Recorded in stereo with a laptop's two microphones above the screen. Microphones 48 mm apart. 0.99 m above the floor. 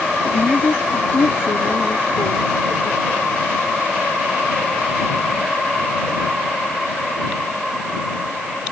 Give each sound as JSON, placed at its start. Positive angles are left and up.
{"t": 0.2, "sound": "a woman speaking", "side_deg": 60}